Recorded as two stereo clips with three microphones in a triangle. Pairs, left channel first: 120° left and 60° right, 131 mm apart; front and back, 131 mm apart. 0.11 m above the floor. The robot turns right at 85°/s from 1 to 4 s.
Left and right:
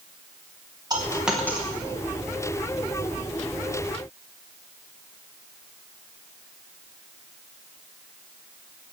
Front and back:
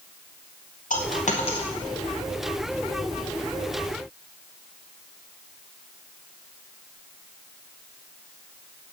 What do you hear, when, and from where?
0.9 s a dropped coin: straight ahead, 4.5 m; by 1.7 s 60° left, 4.5 m